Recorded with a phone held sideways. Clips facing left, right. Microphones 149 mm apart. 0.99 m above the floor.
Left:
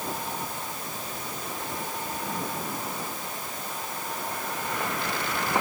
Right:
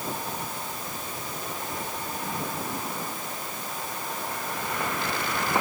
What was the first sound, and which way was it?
Only background noise.